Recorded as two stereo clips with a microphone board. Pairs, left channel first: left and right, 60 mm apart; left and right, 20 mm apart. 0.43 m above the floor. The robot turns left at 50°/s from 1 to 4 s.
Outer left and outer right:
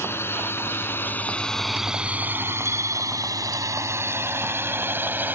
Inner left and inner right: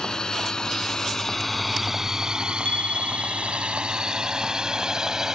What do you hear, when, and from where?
0.0 s a drone: 40° left (ahead or behind); by 5.4 s 30° right (ahead or behind)
2.6 s a bicycle bell: 85° left; by 3.8 s 25° left